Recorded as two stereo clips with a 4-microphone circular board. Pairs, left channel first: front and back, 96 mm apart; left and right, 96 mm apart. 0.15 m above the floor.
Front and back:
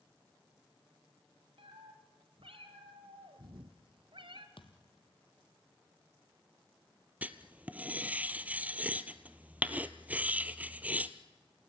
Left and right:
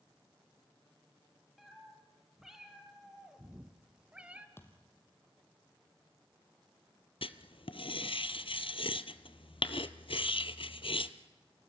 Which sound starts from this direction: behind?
A cat meowing, at 1.6 s.